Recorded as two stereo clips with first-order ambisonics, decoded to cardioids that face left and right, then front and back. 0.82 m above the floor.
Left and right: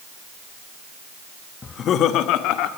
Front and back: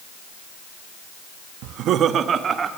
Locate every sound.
1.6 s laughter: 160° left, 0.9 m; by 2.7 s 110° left, 2.0 m